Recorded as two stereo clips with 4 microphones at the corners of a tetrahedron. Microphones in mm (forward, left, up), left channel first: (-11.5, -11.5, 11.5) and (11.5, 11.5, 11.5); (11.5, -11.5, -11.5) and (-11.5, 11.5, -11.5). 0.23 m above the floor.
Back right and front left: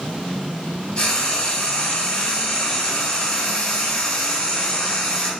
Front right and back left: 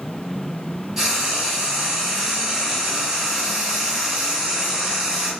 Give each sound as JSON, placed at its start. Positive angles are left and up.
{"t": 1.0, "sound": "frying", "azimuth_deg": -150, "distance_m": 1.1}